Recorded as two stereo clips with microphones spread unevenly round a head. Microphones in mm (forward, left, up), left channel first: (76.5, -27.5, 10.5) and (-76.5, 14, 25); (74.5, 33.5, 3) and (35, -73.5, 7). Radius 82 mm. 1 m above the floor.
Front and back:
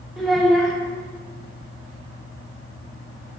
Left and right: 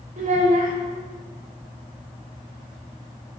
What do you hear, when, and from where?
0.2 s a child speaking: 105° right, 2 m